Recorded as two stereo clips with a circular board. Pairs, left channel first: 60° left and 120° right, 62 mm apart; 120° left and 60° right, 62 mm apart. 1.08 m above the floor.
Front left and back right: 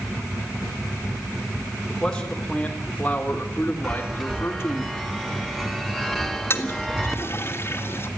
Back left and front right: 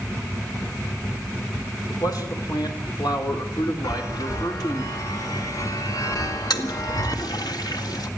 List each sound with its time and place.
1.9 s a man speaking: 140° left, 4 m; by 4.8 s 110° left, 3.5 m
3.8 s a chime: 150° left, 2 m
6.5 s a toilet flushing: 110° left, 1.9 m